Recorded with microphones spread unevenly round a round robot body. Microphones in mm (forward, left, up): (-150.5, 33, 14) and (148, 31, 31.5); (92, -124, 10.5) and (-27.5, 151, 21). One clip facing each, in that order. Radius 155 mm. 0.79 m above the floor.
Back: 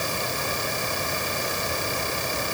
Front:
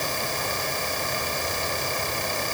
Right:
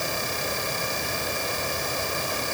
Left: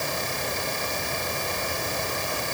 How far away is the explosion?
No explosion in this recording.